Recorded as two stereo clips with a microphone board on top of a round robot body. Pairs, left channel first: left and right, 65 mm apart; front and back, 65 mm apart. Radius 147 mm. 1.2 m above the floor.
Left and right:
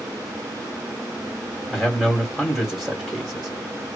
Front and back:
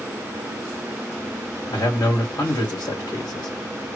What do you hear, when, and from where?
1.7 s a man speaking: straight ahead, 2.0 m